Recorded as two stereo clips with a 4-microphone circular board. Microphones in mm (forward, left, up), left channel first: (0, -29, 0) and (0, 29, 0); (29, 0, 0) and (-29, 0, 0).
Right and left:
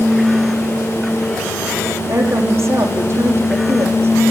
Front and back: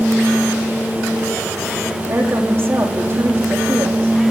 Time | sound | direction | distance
2.1 | a woman speaking | 135° left | 6.5 m